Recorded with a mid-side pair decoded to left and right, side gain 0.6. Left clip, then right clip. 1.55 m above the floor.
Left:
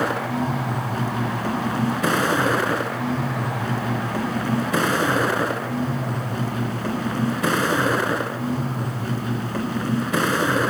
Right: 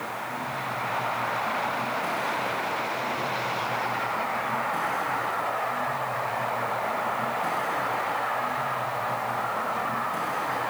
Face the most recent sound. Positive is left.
turn(degrees=65)